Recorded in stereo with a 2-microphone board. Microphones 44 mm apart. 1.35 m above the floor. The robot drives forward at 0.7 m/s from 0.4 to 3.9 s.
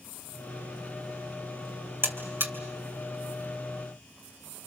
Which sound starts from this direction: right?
A buzzer, at 2.0 s.